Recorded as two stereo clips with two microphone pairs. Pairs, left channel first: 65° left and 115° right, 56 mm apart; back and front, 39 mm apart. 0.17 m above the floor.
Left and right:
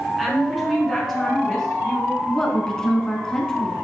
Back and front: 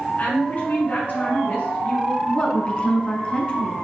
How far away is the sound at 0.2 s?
About 2.0 m.